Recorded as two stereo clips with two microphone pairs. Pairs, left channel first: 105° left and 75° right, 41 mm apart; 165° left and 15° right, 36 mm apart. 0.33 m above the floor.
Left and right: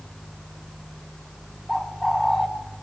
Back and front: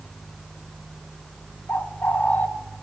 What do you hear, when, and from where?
1.7 s a bird: straight behind, 2 m